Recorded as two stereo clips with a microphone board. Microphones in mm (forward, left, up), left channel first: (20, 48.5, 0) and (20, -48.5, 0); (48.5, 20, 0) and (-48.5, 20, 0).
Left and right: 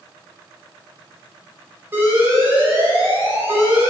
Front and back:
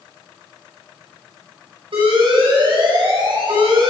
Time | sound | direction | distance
1.9 | an alarm | 155° right | 7 m